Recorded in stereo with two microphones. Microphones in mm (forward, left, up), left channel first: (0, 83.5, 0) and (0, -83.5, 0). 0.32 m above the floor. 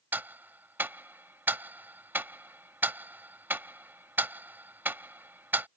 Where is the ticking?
10° right (ahead or behind).